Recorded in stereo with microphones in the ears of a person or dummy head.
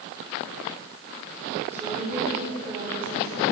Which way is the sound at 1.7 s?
10° right (ahead or behind).